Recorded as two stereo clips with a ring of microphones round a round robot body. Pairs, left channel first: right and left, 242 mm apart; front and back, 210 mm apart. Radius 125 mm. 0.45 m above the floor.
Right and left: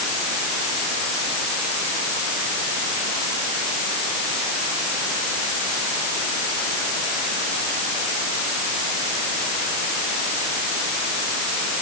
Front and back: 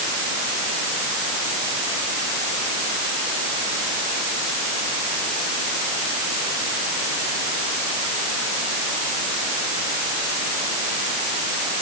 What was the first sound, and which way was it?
Only background noise.